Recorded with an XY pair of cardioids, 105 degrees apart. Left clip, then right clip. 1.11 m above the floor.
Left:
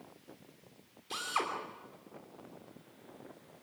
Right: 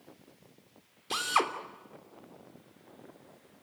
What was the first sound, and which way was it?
A drill, 50° right.